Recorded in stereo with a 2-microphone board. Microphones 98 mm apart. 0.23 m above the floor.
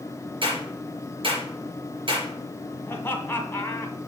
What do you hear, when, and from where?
0.4 s a clap: 55° right (ahead or behind), 3.5 m
2.9 s laughter: 25° left (ahead or behind), 1.4 m